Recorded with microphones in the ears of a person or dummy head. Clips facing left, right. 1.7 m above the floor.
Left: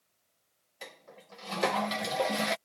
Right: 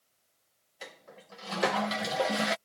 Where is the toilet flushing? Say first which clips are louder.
Right 1 dB; 10° right (ahead or behind).